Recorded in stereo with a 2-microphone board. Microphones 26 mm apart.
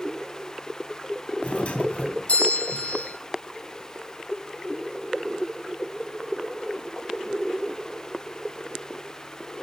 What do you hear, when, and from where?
1.4 s a doorbell: 60° left (ahead or behind), 2.5 m